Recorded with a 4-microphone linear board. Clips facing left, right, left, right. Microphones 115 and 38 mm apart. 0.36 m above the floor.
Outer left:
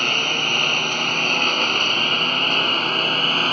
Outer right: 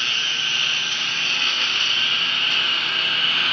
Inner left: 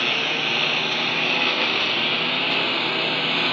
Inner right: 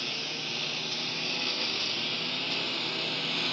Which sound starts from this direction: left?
A lawn mower, at 0.0 s.